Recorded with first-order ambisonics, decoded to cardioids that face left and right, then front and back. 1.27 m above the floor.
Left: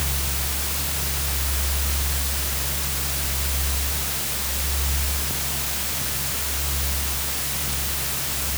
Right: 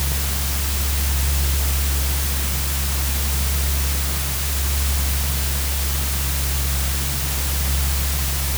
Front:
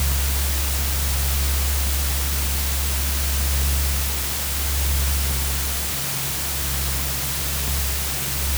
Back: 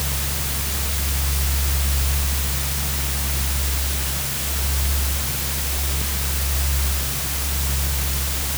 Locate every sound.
Only background noise.